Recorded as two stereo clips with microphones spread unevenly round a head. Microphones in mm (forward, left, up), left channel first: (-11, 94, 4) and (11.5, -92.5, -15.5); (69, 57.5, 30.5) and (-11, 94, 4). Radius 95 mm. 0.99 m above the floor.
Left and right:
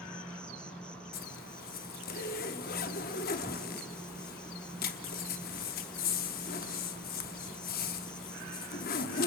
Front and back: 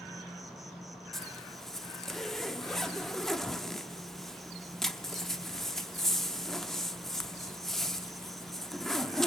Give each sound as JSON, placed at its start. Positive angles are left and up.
{"t": 0.0, "sound": "an insect", "azimuth_deg": -170, "distance_m": 1.0}
{"t": 1.1, "sound": "a zipper", "azimuth_deg": 55, "distance_m": 1.0}